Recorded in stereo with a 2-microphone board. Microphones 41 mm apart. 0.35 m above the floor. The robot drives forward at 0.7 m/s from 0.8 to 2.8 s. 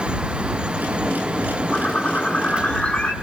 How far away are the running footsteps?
No running footsteps in this recording.